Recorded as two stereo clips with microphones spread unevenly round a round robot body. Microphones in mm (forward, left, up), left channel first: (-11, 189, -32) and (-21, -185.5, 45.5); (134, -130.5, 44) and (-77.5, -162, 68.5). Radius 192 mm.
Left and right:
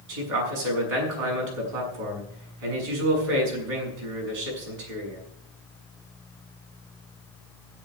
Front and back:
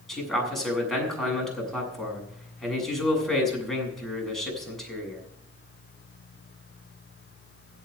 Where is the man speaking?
80° right, 7.5 m.